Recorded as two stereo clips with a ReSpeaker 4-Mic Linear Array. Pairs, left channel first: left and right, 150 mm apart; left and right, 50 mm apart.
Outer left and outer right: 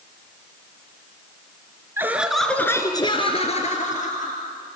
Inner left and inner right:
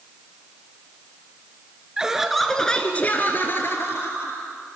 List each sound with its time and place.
2.0 s laughter: 15° right (ahead or behind), 1.4 m; by 4.4 s 60° left (ahead or behind), 2 m